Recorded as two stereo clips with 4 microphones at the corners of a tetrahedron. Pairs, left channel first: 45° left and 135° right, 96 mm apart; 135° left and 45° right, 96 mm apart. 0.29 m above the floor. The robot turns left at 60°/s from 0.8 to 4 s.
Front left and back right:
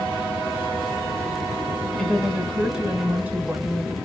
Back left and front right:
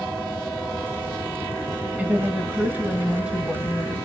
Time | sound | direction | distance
2.0 | a woman speaking | 25° right | 1.2 m